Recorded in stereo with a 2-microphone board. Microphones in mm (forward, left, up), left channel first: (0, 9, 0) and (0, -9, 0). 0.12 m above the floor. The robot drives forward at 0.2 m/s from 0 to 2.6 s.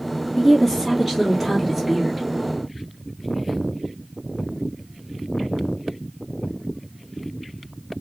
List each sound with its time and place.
0.4 s a woman speaking: 10° left (ahead or behind), 1.8 m